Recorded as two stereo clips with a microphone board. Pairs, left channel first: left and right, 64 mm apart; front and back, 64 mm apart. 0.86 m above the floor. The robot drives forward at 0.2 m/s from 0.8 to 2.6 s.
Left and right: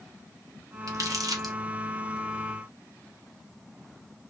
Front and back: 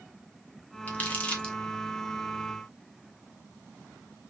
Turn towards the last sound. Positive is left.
turn(degrees=-95)